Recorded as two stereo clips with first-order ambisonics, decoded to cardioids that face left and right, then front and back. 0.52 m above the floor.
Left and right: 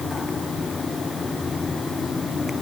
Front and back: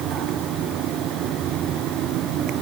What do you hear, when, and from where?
Only background noise.